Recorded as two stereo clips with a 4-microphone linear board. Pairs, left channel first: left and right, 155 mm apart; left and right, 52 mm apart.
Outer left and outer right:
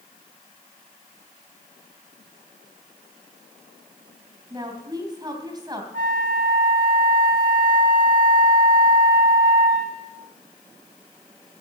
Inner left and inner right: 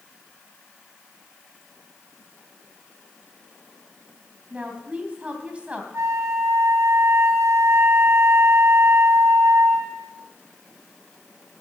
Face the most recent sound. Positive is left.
turn(degrees=-75)  # may be behind; listen again after turning